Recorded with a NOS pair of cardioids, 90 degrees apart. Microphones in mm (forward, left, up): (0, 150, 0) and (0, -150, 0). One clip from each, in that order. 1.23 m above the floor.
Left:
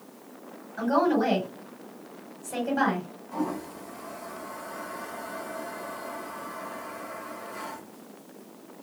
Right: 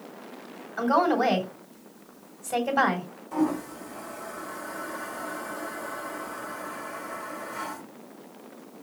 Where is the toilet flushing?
40° right, 3.5 m.